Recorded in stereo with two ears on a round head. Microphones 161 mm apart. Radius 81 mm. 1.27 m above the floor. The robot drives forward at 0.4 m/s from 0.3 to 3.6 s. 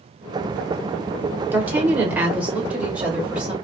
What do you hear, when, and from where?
1.5 s a woman speaking: 10° right (ahead or behind), 1.1 m; by 3.5 s 5° right (ahead or behind), 1.9 m